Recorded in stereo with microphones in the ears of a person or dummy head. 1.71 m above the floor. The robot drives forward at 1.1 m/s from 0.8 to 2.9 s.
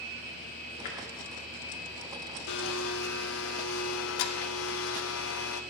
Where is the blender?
60° left (ahead or behind), 1.0 m; by 5.6 s 75° left (ahead or behind), 0.9 m.